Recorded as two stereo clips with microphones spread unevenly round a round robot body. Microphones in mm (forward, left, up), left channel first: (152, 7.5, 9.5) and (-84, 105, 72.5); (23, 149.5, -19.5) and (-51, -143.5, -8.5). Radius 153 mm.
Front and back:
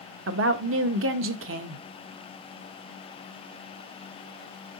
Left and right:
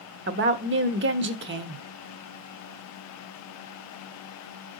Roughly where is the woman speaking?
Behind right.